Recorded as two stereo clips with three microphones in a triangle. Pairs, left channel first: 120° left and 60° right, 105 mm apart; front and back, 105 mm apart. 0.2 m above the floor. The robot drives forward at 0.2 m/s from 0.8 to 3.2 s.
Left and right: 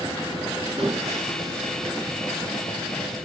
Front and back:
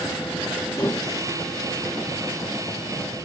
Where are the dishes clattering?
55° right, 1.5 m; by 1.1 s 60° right, 1.4 m.